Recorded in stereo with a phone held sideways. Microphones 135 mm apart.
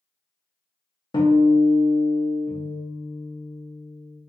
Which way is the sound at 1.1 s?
35° left (ahead or behind).